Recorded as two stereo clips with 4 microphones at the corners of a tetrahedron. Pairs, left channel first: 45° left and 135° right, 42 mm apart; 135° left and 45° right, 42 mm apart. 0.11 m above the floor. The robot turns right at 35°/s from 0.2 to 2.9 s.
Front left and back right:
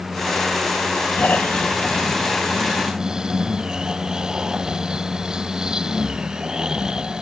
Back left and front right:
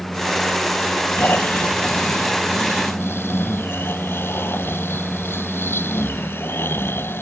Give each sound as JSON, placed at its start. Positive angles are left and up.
{"t": 1.2, "sound": "snoring", "azimuth_deg": 90}